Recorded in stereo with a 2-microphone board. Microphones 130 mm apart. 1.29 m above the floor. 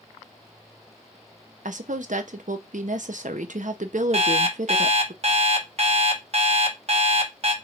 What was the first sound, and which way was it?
A woman speaking, 75° right (ahead or behind).